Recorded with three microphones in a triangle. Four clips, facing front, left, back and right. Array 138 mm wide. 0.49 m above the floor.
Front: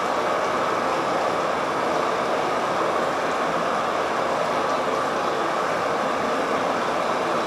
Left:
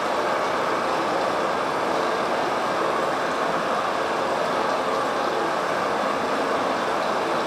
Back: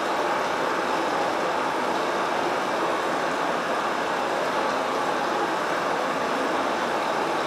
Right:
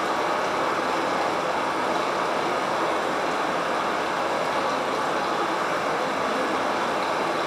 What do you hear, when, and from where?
0.0 s running water: 25° left, 1.0 m